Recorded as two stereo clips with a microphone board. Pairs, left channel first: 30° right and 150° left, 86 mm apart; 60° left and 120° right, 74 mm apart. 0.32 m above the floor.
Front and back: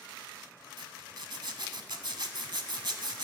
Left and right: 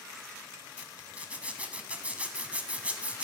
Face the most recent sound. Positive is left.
turn(degrees=170)